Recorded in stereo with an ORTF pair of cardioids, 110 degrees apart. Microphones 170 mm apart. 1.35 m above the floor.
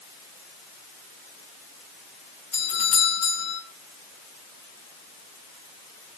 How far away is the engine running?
I don't hear an engine running.